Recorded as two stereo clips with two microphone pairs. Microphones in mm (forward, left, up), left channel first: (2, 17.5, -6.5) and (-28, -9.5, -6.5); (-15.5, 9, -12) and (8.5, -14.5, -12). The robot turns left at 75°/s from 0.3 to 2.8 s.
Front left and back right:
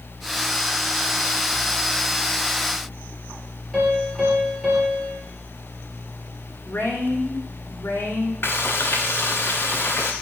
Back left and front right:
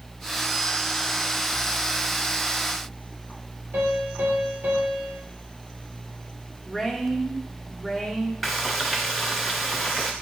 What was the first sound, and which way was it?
A piano, 60° right.